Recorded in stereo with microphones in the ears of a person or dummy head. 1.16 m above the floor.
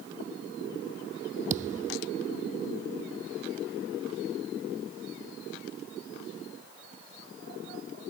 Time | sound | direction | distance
1.5 | a thud | 40° right (ahead or behind) | ?